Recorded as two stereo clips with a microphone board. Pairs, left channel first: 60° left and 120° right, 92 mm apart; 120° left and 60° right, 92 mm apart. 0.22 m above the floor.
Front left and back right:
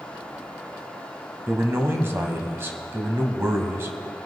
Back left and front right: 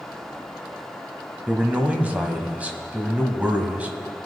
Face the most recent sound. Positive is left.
turn(degrees=-110)